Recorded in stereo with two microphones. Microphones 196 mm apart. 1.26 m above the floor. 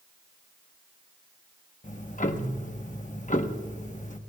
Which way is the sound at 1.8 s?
40° left (ahead or behind).